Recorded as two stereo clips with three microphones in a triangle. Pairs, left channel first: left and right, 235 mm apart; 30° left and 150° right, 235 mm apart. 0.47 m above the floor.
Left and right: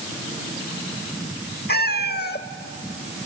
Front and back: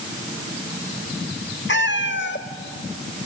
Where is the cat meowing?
55° left, 0.8 m.